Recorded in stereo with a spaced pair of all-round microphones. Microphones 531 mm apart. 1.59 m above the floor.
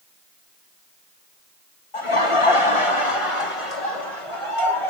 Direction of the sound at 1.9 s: 60° left (ahead or behind).